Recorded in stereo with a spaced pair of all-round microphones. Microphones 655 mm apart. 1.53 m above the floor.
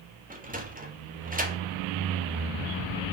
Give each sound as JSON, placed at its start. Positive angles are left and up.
{"t": 0.3, "sound": "a sliding door", "side_deg": -10, "distance_m": 1.3}